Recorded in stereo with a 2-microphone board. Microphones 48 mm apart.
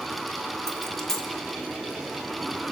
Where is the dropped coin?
10° left (ahead or behind), 1.1 m.